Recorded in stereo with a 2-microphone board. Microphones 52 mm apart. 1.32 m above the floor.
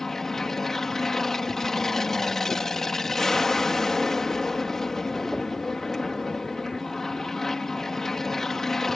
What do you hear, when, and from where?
0.0 s an aircraft: 5° left (ahead or behind)